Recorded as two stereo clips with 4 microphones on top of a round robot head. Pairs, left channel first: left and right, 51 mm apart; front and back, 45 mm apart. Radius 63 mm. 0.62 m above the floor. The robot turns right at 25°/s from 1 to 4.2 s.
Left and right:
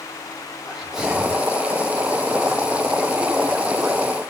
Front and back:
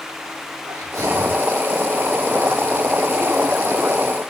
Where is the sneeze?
170° right, 6.5 m; by 1.4 s 160° right, 6.5 m.